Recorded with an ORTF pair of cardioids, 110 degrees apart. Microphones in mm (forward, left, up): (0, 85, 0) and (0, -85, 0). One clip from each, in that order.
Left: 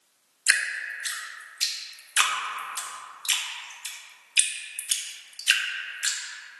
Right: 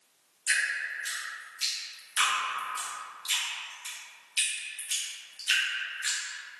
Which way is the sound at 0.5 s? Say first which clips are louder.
Left 3 dB; 40° left.